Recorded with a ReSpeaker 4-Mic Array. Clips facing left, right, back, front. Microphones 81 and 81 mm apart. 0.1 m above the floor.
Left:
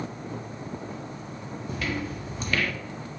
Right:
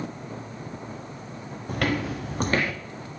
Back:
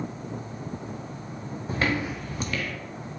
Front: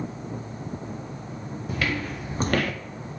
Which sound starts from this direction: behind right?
Footsteps, at 1.7 s.